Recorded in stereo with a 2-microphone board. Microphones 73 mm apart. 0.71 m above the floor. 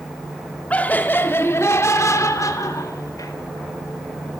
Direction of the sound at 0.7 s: 20° left (ahead or behind).